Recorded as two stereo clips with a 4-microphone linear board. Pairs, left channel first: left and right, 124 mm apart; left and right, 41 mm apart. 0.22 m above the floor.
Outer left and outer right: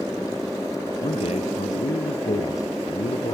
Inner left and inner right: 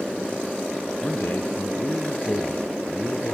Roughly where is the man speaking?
Left.